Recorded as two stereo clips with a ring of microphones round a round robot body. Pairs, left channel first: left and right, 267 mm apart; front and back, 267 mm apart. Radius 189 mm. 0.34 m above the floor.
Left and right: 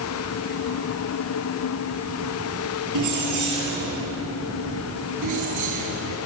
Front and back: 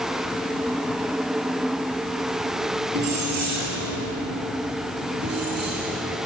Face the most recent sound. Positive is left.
turn(degrees=-115)